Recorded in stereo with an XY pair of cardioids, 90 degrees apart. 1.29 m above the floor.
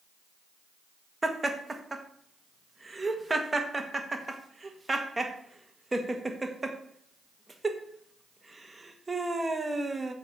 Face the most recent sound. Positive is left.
turn(degrees=-20)